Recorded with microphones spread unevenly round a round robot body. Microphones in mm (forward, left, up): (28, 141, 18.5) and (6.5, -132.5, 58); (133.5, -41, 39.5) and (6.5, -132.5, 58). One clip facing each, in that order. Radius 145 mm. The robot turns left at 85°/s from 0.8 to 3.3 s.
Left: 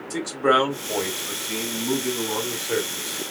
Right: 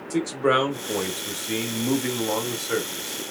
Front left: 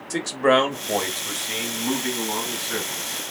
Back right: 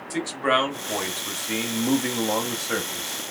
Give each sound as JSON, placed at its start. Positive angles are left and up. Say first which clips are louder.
{"t": 0.1, "sound": "a man speaking", "louder": "even, front left 5 dB", "azimuth_deg": -5, "distance_m": 1.3}